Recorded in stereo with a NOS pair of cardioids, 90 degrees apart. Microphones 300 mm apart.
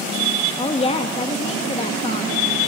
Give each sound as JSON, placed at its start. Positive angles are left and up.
{"t": 0.6, "sound": "a woman speaking", "azimuth_deg": 20, "distance_m": 2.0}